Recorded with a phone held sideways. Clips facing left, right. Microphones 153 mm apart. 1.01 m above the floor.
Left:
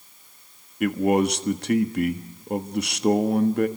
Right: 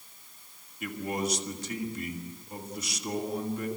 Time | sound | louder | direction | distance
0.8 | a man speaking | left 12 dB | 70° left (ahead or behind) | 1.5 m